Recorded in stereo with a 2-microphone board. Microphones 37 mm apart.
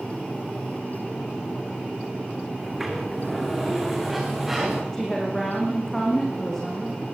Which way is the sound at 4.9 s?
10° left (ahead or behind).